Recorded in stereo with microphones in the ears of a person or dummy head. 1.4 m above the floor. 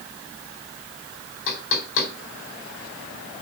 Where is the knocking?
70° left (ahead or behind), 3.5 m.